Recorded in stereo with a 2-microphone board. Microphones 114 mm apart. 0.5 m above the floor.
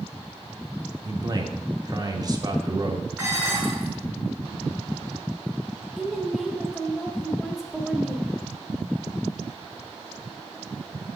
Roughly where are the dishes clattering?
Centre.